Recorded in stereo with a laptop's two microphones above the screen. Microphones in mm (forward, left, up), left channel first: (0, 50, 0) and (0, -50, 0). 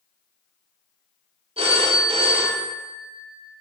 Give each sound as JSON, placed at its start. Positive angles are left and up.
{"t": 1.6, "sound": "a phone ringing", "side_deg": -75, "distance_m": 0.6}